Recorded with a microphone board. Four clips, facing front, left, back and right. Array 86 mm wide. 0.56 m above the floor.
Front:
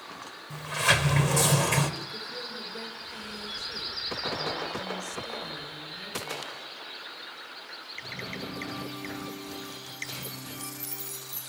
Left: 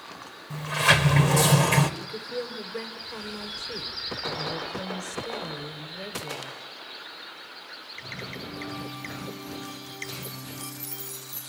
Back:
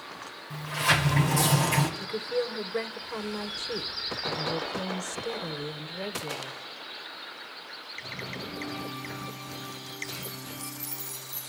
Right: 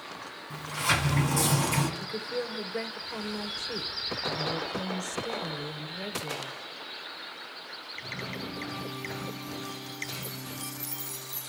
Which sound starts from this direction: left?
A sliding door, at 0.5 s.